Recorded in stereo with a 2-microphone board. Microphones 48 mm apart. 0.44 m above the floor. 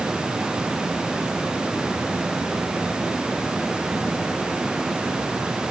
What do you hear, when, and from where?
Only background noise.